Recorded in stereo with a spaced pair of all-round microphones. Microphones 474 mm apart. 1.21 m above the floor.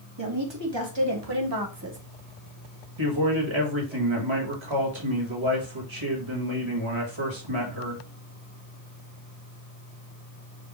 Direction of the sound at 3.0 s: 75° right (ahead or behind).